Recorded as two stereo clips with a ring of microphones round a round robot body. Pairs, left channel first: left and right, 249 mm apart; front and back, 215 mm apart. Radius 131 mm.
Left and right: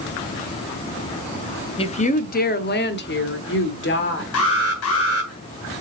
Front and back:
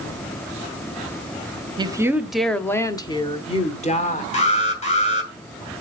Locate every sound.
1.8 s a woman speaking: 135° left, 0.8 m; by 4.2 s 50° left, 1.6 m
4.3 s an alarm: 60° left, 2.5 m